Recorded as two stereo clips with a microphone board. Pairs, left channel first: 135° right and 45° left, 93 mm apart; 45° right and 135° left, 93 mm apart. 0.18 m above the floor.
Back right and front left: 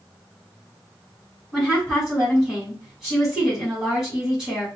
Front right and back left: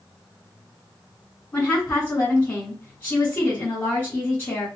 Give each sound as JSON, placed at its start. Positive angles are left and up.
{"t": 1.5, "sound": "a woman speaking", "azimuth_deg": -30, "distance_m": 1.6}